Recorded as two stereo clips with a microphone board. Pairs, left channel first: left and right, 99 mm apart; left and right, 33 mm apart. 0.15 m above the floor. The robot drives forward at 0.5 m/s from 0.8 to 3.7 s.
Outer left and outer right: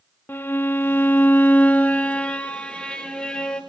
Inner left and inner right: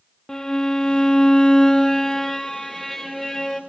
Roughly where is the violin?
Left.